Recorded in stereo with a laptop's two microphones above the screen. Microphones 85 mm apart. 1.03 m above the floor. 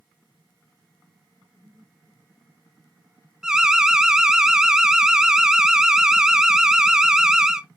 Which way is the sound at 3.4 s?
5° right (ahead or behind).